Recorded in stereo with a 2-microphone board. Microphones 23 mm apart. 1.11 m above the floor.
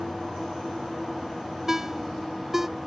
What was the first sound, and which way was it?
A ringtone, 15° right (ahead or behind).